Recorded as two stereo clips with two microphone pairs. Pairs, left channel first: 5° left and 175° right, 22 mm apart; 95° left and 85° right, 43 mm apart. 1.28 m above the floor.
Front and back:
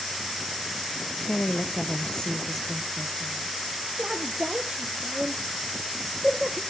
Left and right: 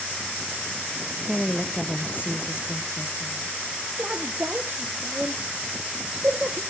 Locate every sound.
1.3 s a woman speaking: straight ahead, 0.9 m; by 3.6 s 95° left, 1.7 m
4.0 s a woman speaking: 135° right, 1.0 m